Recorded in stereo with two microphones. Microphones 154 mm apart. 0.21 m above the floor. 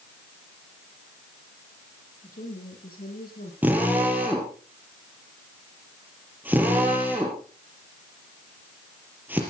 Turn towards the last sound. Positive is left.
turn(degrees=-10)  # may be behind; listen again after turning